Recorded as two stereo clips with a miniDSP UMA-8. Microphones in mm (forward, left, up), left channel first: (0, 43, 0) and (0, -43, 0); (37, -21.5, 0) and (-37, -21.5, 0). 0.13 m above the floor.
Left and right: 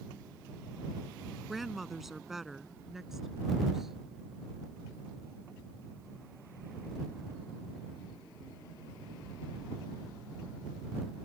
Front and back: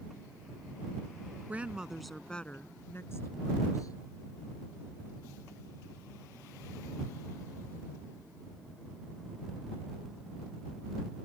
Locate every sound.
1.5 s a woman speaking: 175° right; by 4.0 s 5° right